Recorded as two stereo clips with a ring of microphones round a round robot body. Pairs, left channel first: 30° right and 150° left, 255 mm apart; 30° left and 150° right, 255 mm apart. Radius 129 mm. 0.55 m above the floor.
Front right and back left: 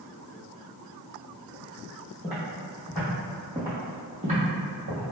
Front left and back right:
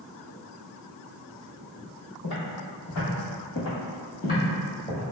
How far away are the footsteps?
About 1.5 m.